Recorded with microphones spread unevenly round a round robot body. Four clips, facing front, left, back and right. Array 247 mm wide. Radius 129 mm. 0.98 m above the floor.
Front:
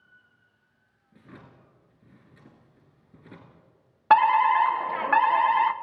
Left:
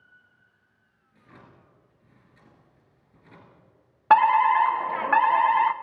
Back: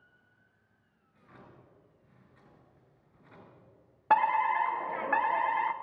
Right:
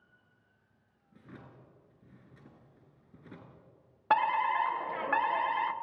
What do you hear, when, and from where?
1.1 s a drawer: 20° right, 4.5 m
4.1 s a fire alarm: 50° left, 1.3 m